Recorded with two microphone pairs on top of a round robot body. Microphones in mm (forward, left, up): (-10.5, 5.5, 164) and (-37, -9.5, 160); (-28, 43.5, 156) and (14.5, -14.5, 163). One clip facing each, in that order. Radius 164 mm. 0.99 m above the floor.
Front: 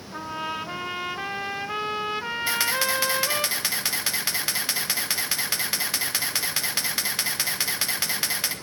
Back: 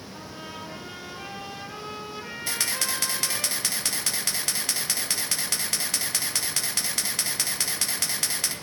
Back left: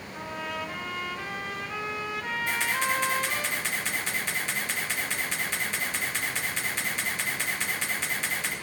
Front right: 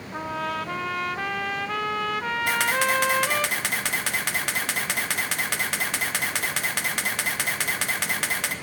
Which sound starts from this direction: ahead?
A trumpet, at 0.1 s.